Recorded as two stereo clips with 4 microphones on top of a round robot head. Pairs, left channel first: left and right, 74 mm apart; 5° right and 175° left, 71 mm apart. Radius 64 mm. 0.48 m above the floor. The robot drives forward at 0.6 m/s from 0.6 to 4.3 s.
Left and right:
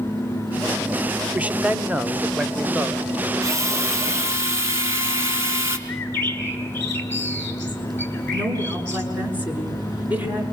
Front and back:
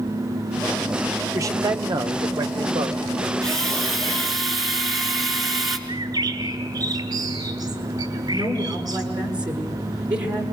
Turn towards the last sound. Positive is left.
turn(degrees=-155)